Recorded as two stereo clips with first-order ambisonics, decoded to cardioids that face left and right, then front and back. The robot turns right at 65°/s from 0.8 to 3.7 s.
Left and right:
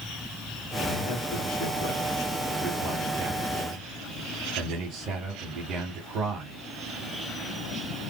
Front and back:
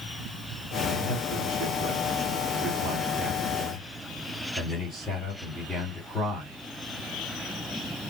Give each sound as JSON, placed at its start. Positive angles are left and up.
{"t": 0.8, "sound": "a man speaking", "azimuth_deg": 105, "distance_m": 2.0}